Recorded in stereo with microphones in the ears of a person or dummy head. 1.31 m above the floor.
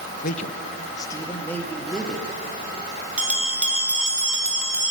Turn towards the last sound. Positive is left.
turn(degrees=-10)  # may be behind; listen again after turning